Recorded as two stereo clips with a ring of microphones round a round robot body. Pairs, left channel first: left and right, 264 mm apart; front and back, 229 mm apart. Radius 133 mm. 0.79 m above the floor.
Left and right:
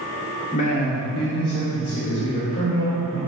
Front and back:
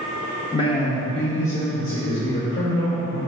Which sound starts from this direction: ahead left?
A man speaking, at 0.5 s.